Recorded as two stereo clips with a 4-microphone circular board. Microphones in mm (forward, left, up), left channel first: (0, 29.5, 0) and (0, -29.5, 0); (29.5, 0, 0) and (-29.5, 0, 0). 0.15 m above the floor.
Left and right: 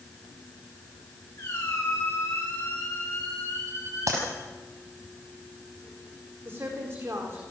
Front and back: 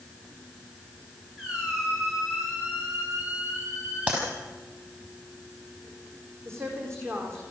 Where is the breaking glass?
No breaking glass in this recording.